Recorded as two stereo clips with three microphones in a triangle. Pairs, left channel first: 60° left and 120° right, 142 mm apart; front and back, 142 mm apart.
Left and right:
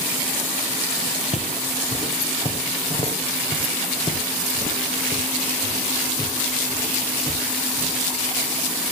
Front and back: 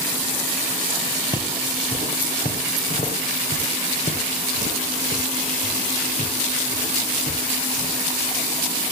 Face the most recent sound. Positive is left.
turn(degrees=-5)